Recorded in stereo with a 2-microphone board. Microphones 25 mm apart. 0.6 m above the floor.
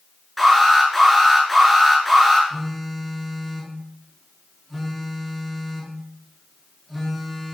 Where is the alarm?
5° left (ahead or behind), 9 m.